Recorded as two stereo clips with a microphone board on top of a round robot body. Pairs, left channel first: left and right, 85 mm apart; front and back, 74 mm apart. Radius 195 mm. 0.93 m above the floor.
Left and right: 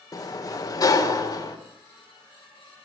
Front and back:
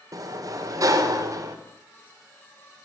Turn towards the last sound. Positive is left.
turn(degrees=135)